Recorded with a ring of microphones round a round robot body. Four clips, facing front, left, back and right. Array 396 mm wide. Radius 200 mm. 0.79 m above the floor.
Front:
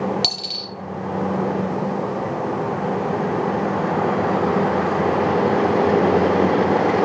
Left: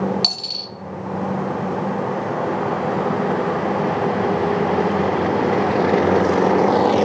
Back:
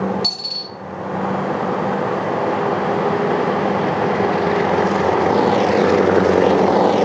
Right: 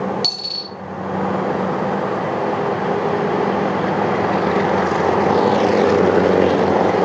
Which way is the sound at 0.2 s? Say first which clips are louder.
Right 2 dB, even; 20° left.